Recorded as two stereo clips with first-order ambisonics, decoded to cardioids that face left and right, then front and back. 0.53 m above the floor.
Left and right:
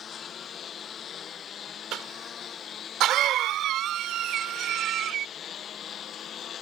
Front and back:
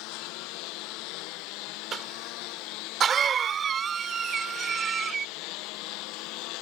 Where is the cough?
125° right.